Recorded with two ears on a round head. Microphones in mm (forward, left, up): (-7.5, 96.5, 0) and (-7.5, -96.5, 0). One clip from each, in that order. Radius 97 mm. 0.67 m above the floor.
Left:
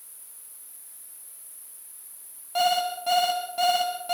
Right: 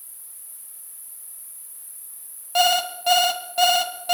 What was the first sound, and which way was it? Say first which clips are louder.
An insect: right 4 dB; 15° right (ahead or behind).